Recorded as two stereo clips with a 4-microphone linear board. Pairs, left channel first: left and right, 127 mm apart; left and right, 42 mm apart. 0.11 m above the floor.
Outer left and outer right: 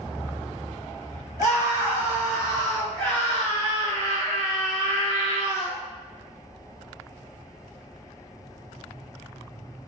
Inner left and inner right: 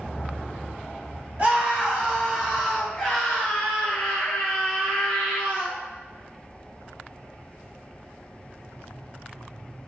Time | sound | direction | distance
1.4 | a scream | 25° right (ahead or behind) | 1.7 m